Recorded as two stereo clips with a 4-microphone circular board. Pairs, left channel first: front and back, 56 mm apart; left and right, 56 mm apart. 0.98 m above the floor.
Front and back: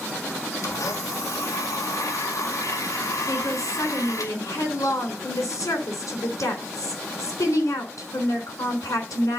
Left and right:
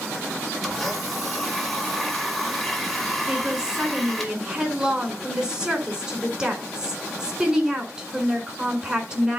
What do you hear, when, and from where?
0.6 s a blender: straight ahead, 2 m
3.3 s a woman speaking: 20° right, 4 m